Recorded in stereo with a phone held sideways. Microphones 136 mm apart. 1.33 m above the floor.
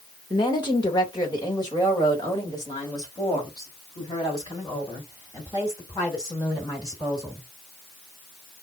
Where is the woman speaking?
35° left (ahead or behind), 1.2 m; by 7.5 s 25° left (ahead or behind), 5 m.